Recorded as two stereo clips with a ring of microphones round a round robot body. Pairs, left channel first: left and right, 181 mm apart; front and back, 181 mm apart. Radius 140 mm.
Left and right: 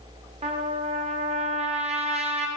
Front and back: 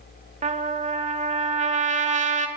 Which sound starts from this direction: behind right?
A trumpet, at 0.4 s.